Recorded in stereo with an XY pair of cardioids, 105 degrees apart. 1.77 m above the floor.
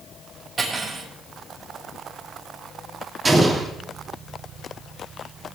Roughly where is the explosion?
Ahead right.